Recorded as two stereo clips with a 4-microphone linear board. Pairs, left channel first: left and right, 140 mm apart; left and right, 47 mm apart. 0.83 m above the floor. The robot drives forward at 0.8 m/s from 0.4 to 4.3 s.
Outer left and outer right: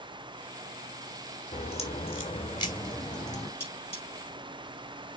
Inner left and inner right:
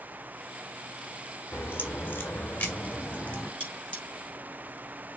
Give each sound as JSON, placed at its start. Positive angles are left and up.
{"t": 1.5, "sound": "a crack", "side_deg": 55, "distance_m": 1.6}
{"t": 3.6, "sound": "cutlery clinking", "side_deg": 20, "distance_m": 7.5}